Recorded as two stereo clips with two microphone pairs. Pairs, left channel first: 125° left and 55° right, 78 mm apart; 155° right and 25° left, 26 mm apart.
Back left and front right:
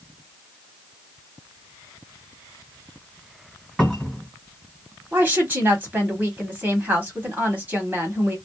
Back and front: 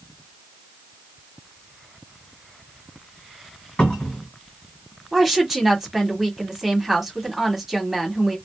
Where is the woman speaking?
35° right, 1.2 m.